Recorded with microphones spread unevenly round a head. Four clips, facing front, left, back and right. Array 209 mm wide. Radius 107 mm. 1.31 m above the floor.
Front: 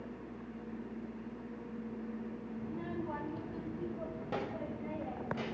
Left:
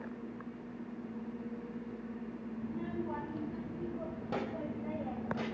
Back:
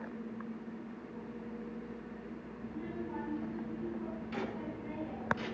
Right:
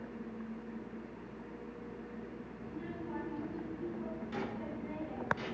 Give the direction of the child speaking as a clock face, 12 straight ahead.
11 o'clock.